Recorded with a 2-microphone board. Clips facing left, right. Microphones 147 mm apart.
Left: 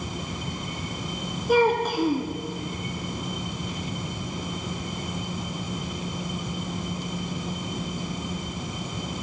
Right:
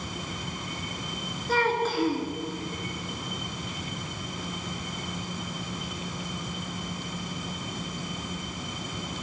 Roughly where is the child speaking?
Centre.